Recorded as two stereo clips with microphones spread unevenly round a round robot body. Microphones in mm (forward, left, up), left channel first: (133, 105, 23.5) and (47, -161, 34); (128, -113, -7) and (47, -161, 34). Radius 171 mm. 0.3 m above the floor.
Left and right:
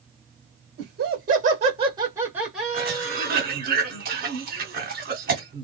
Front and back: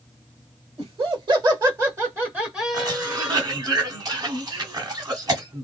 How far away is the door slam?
I don't hear a door slam.